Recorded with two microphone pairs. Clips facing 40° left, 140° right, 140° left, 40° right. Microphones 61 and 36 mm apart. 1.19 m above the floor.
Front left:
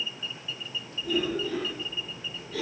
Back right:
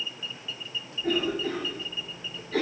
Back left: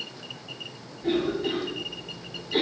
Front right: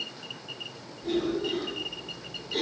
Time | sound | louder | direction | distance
1.0 | a cough | back right 1 dB, back left 2 dB | 170° right | 8 m